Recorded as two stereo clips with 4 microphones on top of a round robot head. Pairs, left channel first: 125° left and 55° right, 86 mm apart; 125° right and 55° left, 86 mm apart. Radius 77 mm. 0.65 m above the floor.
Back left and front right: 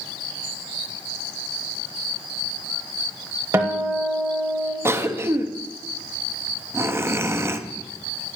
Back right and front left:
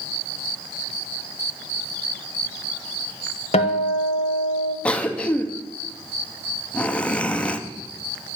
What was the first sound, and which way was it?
A guitar, 120° right.